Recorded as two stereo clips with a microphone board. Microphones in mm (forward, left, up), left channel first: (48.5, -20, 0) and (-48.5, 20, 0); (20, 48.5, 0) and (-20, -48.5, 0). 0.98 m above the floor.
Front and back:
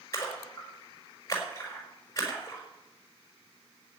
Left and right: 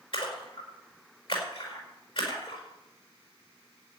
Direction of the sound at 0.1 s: 35° left.